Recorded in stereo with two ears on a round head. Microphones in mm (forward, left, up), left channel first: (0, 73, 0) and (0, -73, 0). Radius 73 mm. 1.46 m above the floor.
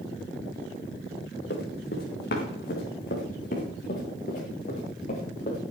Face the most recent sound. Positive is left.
turn(degrees=45)  # may be behind; listen again after turning